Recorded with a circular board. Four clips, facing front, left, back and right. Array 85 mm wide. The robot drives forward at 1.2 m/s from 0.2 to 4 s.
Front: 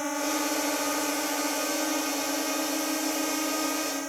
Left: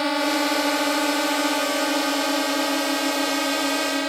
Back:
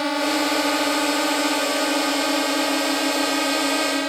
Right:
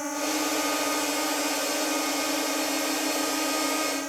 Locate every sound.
0.0 s a drone: 130° left; by 4.1 s 140° left